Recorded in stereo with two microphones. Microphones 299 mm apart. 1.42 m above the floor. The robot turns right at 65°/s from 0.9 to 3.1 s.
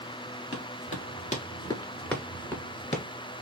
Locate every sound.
0.5 s running footsteps: 45° left (ahead or behind), 1.9 m; by 3.0 s 25° left (ahead or behind), 1.5 m